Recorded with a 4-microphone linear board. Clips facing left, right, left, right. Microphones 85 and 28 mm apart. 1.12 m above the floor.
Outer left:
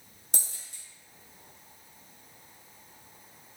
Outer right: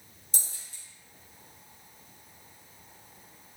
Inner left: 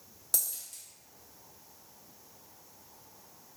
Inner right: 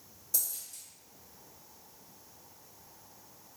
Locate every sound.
0.3 s a dropped coin: 65° left (ahead or behind), 0.8 m